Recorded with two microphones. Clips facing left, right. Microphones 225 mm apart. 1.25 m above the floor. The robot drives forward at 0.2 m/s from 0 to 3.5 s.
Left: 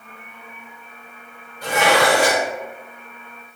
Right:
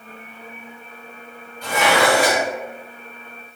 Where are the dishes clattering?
80° left, 1.1 m.